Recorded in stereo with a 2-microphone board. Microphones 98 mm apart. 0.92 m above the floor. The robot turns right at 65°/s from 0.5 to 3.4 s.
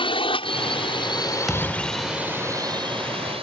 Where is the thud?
Straight behind; by 2.3 s 125° right.